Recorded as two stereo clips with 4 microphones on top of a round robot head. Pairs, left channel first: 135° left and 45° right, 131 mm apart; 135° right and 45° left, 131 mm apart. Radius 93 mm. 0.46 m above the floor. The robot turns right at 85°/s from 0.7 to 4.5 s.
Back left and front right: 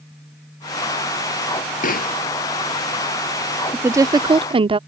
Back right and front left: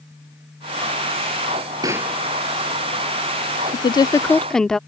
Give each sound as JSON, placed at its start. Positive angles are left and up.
{"t": 1.8, "sound": "a pop", "azimuth_deg": 110}
{"t": 3.7, "sound": "a woman speaking", "azimuth_deg": -120}